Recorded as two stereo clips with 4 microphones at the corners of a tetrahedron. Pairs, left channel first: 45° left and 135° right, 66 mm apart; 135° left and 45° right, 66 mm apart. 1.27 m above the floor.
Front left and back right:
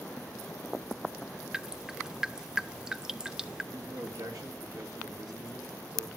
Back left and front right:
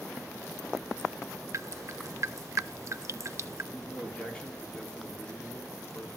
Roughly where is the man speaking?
Behind right.